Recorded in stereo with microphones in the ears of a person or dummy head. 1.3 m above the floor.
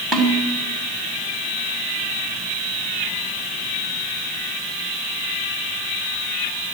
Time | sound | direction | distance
0.1 | a snare drum | centre (ahead or behind) | 3 m